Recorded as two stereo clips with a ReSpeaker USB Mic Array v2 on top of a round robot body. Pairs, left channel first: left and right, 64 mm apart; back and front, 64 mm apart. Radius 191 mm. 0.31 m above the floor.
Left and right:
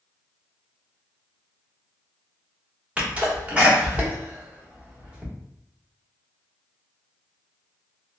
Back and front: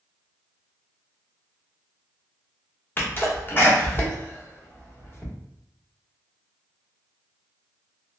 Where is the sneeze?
150° right, 1.3 m.